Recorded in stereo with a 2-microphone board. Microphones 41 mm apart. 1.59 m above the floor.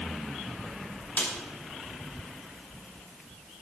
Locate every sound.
1.2 s a snare drum: 45° left (ahead or behind), 2.5 m